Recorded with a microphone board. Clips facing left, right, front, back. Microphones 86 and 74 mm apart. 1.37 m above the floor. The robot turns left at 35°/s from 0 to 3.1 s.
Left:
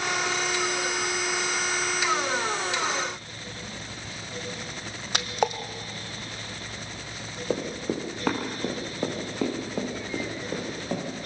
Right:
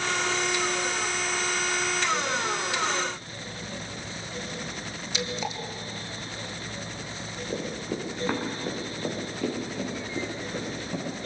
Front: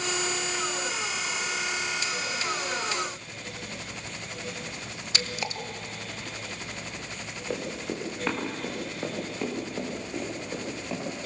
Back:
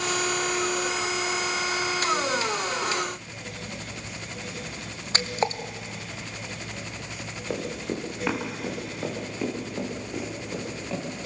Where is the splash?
130° left, 1.2 m.